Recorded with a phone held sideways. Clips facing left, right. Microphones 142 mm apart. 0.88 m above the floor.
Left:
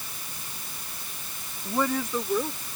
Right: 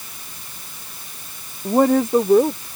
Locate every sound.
1.6 s a woman speaking: 55° right (ahead or behind)